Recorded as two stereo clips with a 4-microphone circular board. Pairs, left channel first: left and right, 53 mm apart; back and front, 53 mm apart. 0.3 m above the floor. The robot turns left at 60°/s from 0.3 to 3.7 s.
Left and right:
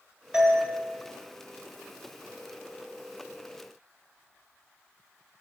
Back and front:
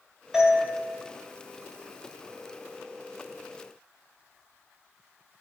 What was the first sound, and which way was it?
A doorbell, 65° right.